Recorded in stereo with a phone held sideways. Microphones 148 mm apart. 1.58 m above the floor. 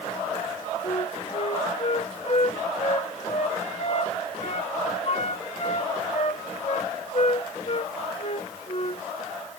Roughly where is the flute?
Left.